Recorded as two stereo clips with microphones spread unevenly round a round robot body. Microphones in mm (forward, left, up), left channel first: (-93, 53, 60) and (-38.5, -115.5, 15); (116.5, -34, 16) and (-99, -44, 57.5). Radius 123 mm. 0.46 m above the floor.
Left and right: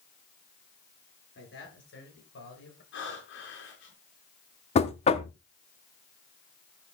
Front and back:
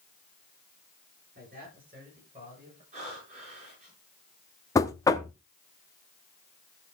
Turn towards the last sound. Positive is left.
turn(degrees=50)